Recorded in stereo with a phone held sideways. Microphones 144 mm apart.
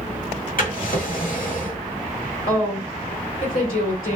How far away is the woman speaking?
About 1.5 m.